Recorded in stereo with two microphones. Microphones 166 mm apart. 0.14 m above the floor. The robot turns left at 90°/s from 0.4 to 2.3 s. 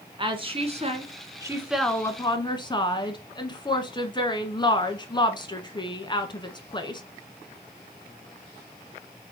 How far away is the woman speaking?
About 1.3 m.